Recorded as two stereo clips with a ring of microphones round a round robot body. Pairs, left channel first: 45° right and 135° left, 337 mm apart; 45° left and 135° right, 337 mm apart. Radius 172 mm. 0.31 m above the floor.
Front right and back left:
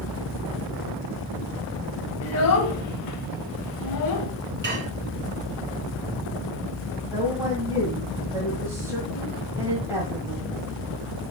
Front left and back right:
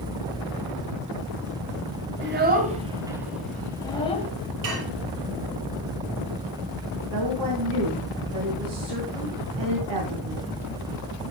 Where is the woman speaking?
145° right, 2 m.